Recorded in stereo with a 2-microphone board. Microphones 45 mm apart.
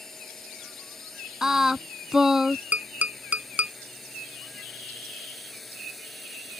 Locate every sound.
0.0 s a drone: 10° left (ahead or behind); by 6.6 s centre (ahead or behind)
1.4 s singing: 10° right (ahead or behind)
2.7 s tapping: 35° right (ahead or behind)